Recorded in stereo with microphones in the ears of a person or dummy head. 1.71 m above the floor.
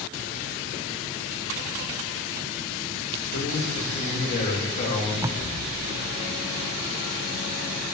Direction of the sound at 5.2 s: 20° right (ahead or behind).